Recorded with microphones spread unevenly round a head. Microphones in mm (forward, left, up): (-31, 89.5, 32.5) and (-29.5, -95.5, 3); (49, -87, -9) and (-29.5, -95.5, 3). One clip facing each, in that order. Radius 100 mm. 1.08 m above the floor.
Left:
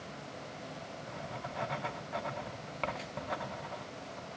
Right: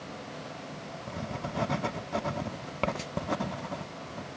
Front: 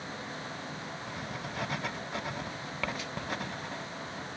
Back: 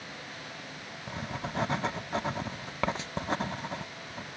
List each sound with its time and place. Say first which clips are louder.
1.1 s writing: right 8 dB, back 6 dB; 110° right, 0.8 m